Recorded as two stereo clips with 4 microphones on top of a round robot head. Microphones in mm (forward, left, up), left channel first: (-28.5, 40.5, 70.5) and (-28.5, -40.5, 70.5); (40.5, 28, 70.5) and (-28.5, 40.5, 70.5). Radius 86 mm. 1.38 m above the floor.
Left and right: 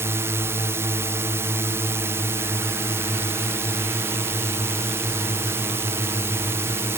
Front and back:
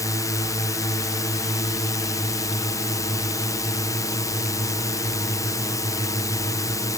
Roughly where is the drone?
Ahead right.